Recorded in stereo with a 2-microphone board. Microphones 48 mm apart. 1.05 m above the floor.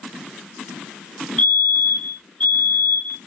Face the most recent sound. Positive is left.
turn(degrees=25)  # may be behind; listen again after turning